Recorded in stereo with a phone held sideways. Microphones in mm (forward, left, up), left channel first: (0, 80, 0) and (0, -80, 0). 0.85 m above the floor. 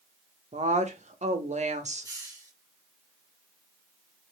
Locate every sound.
0.5 s a woman speaking: 50° right (ahead or behind), 1.2 m
2.0 s a hiss: 20° right (ahead or behind), 2 m